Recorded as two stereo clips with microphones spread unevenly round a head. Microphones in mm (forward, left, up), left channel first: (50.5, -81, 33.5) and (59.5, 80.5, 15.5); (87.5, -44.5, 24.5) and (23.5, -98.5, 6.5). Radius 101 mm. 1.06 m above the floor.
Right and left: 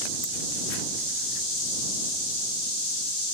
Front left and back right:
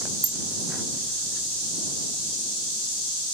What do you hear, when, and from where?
0.2 s a bicycle bell: 85° right